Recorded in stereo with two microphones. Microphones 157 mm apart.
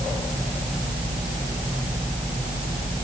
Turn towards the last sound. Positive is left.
No sound to turn to.